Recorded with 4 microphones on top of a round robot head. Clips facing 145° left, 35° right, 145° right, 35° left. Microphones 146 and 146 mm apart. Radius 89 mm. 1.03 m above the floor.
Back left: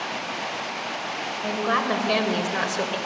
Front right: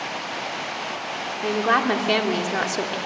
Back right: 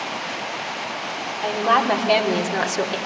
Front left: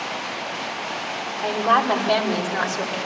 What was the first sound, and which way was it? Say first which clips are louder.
A woman speaking: front right 4 dB, back right 1 dB; 50° right.